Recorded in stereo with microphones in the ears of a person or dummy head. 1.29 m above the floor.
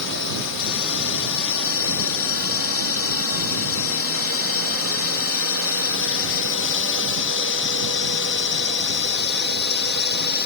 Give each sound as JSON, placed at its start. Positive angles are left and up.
{"t": 0.0, "sound": "a drone", "side_deg": 65}